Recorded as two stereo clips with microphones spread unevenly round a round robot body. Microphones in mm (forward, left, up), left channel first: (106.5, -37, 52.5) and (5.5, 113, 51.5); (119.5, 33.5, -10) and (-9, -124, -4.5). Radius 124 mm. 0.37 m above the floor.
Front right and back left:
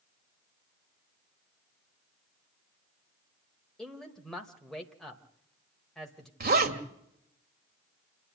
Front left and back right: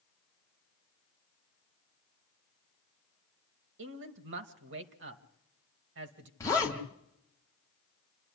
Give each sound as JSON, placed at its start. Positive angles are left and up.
{"t": 3.8, "sound": "a man speaking", "azimuth_deg": -145, "distance_m": 1.4}
{"t": 6.4, "sound": "a zipper", "azimuth_deg": 125, "distance_m": 2.5}